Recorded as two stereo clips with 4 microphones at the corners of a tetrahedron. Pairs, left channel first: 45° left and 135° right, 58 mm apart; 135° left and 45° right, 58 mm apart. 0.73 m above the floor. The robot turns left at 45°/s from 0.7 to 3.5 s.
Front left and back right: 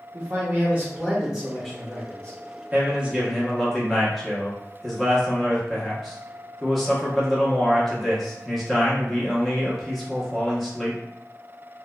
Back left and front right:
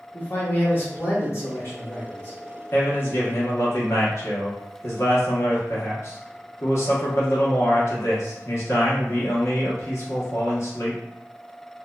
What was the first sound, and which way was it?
A man speaking, 175° left.